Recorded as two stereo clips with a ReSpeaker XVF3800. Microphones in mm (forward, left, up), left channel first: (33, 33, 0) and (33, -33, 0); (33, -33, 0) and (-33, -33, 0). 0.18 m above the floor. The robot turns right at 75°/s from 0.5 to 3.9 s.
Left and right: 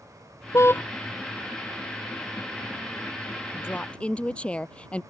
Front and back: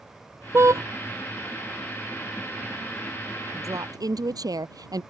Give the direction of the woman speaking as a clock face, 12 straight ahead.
7 o'clock.